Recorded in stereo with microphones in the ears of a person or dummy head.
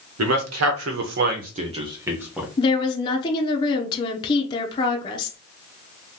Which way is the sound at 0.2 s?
80° right.